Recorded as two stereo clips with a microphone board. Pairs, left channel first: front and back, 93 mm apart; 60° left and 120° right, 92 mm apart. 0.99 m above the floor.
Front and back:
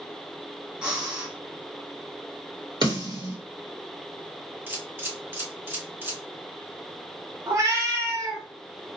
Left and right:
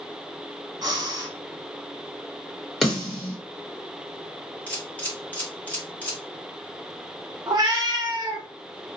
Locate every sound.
0.8 s breathing: 110° right, 1.2 m
2.8 s a snare drum: 145° left, 1.2 m
4.7 s a camera shutter: 125° left, 1.0 m
7.5 s a cat meowing: 145° right, 0.6 m